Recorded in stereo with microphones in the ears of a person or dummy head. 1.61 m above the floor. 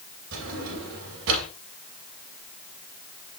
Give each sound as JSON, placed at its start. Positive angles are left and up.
{"t": 0.3, "sound": "a drawer", "side_deg": -75, "distance_m": 3.5}